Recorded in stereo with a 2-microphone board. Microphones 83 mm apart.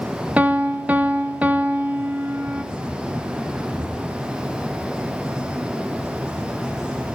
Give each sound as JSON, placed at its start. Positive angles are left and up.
{"t": 0.4, "sound": "a piano", "side_deg": -15, "distance_m": 0.6}